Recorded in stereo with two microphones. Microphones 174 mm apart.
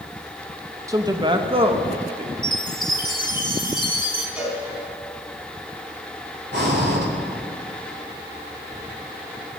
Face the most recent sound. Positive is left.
turn(degrees=-70)  # may be behind; listen again after turning